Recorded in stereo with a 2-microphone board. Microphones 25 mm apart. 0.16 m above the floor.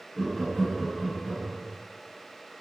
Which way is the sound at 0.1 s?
30° left (ahead or behind).